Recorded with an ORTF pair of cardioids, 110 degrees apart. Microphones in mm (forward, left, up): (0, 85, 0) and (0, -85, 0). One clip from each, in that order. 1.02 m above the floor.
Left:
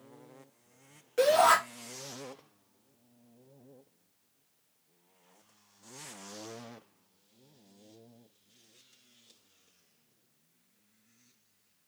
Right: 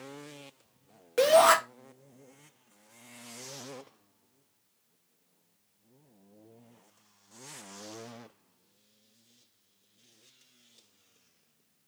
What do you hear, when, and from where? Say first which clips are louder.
1.2 s a shout: right 2 dB; 35° right, 1.6 m